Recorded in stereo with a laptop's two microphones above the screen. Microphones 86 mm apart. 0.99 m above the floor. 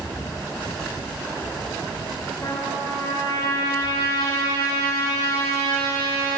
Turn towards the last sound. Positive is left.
turn(degrees=60)  # may be behind; listen again after turning